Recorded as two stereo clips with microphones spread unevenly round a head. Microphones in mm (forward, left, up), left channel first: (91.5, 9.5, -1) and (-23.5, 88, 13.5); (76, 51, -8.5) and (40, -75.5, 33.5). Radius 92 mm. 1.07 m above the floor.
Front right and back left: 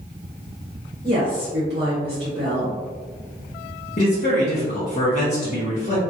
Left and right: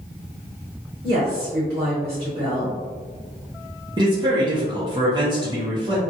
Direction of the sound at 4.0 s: 40° right.